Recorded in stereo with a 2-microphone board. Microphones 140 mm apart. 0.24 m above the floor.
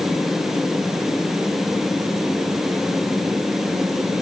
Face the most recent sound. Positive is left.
No sound to turn to.